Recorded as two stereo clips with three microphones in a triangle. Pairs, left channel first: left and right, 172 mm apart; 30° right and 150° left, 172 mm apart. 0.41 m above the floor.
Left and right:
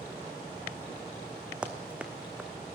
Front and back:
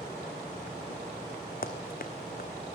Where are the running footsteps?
5° right, 1.2 m.